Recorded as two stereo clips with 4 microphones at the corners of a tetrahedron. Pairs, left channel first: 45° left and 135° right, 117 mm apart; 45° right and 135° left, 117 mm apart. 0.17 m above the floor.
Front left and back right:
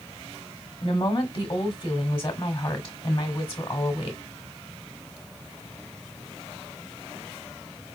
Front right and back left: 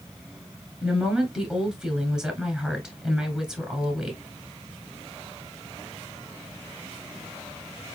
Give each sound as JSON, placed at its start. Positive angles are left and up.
{"t": 0.8, "sound": "a woman speaking", "azimuth_deg": 60, "distance_m": 1.3}